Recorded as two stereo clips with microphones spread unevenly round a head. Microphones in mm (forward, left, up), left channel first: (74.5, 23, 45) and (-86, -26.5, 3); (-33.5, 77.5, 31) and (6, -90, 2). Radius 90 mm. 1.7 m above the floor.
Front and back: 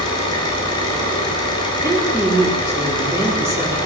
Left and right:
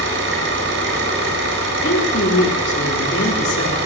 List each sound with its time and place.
0.0 s an engine running: 45° right, 7.5 m
1.8 s a woman speaking: 120° left, 4 m